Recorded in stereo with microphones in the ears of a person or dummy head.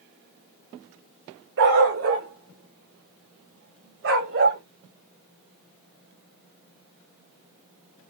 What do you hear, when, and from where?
1.6 s a dog barking: 60° right (ahead or behind), 1.7 m; by 4.6 s 55° right (ahead or behind), 2.5 m